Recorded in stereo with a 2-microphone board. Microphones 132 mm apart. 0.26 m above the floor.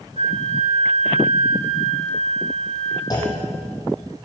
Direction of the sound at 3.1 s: 30° left (ahead or behind).